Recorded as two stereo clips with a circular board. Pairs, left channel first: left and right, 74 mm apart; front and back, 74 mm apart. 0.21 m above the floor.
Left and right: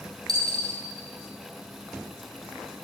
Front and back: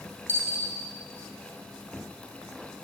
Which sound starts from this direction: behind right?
A dropped coin, at 0.3 s.